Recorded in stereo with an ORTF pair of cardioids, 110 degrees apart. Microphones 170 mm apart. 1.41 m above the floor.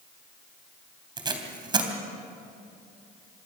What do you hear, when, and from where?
1.2 s tape being pulled: 30° right, 3.5 m